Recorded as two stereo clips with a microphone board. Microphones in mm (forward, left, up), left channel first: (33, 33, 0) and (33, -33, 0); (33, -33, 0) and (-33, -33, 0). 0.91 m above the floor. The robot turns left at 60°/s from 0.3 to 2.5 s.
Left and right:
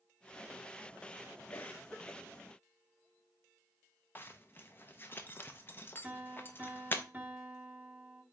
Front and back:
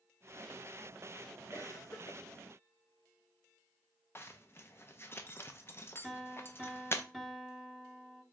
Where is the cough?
45° left, 0.7 m; by 2.2 s 5° left, 0.7 m.